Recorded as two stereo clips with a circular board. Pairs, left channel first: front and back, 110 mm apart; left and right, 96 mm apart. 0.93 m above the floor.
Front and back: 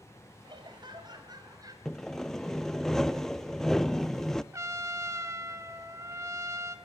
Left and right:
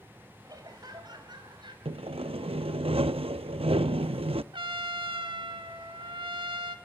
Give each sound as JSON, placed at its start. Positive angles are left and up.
{"t": 0.4, "sound": "laughter", "azimuth_deg": -135, "distance_m": 5.0}
{"t": 1.9, "sound": "sawing", "azimuth_deg": -85, "distance_m": 0.6}
{"t": 4.5, "sound": "a trumpet", "azimuth_deg": -120, "distance_m": 1.6}